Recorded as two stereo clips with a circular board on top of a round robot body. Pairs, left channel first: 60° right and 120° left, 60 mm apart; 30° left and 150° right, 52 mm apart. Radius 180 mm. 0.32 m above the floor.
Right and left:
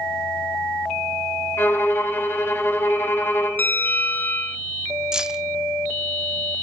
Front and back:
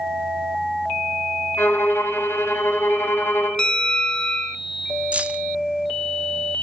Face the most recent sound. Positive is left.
turn(degrees=-175)